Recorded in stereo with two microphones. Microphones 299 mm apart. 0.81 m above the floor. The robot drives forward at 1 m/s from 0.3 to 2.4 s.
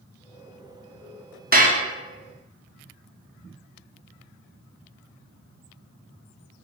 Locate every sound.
1.5 s dishes clattering: 30° right (ahead or behind), 0.7 m; by 1.8 s 20° right (ahead or behind), 0.9 m